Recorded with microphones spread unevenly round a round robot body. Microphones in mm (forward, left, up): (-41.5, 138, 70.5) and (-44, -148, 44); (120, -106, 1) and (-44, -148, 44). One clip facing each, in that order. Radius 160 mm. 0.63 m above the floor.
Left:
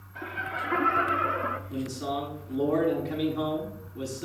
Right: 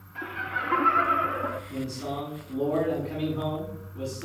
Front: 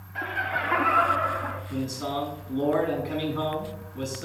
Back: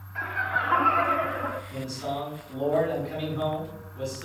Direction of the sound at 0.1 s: 30° right.